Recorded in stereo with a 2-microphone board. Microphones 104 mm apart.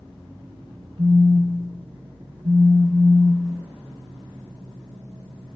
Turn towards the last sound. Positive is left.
turn(degrees=-65)  # may be behind; listen again after turning